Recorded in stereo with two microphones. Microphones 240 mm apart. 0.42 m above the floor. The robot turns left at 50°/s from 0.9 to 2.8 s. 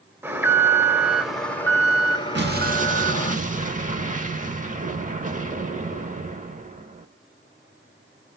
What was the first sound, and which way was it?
An alarm, 10° right (ahead or behind).